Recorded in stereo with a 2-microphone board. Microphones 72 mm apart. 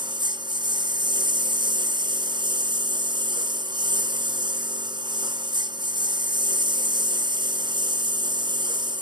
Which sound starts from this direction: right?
A lawn mower, at 0.0 s.